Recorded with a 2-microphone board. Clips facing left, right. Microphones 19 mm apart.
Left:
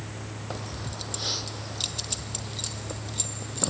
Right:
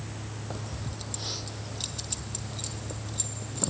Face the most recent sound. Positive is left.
turn(degrees=20)  # may be behind; listen again after turning